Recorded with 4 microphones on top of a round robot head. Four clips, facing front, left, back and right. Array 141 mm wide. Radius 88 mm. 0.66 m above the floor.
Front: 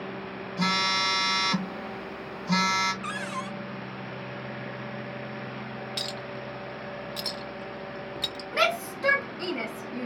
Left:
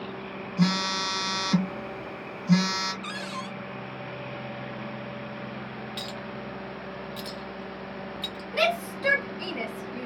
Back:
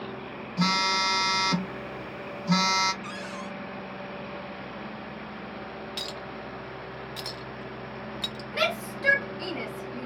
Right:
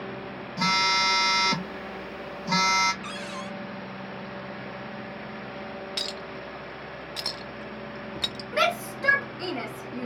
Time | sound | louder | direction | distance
0.6 | a phone buzzing | right 2 dB, back 1 dB | 130° right | 1.5 m
3.0 | a cupboard door | even, front 3 dB | 20° left | 0.8 m
6.0 | a clink | even, front 1 dB | 80° right | 0.6 m
8.5 | a shout | even, front 3 dB | 45° right | 1.8 m